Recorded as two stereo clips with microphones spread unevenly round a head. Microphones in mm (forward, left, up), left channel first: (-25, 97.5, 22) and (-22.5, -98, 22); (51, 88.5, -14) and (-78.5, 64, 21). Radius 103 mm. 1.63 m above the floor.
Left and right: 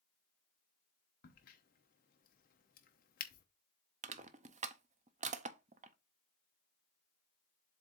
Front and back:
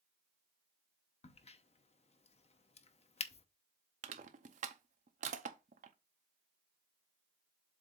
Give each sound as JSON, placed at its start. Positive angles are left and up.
{"t": 1.2, "sound": "a crack", "azimuth_deg": 50, "distance_m": 0.8}
{"t": 4.0, "sound": "crushing", "azimuth_deg": -145, "distance_m": 0.6}